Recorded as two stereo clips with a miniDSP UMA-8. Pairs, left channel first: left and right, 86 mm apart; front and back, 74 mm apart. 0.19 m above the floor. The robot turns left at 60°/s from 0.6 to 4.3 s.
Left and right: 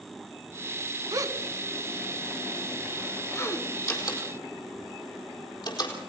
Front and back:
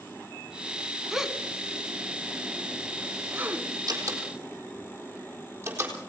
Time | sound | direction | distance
1.1 | a gasp | 95° right | 1.3 m
3.9 | a door slam | 145° left | 4 m